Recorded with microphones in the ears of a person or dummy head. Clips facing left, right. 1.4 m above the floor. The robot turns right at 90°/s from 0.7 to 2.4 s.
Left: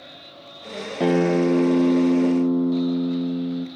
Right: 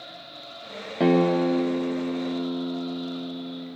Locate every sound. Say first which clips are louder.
1.0 s a guitar: left 1 dB; straight ahead, 0.7 m; by 3.7 s 125° left, 0.7 m